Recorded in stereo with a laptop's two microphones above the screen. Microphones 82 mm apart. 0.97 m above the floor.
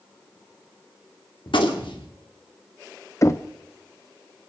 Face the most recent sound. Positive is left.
turn(degrees=35)  # may be behind; listen again after turning